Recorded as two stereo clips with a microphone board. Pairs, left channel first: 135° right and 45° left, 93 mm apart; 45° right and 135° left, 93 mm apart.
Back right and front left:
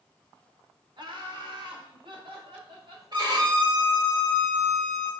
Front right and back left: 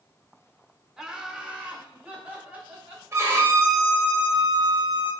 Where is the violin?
80° left, 1.5 m.